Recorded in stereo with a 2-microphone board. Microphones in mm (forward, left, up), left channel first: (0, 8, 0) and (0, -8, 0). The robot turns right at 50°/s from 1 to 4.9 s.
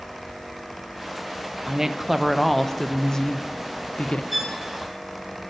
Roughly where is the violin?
Centre.